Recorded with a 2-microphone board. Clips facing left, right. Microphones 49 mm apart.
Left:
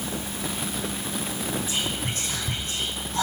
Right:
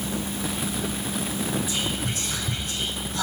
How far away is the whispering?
About 5 m.